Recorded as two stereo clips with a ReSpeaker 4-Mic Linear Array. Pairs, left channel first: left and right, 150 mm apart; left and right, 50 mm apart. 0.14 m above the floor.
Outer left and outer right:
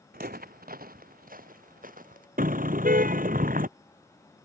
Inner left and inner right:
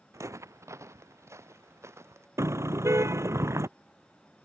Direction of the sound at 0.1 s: 85° right.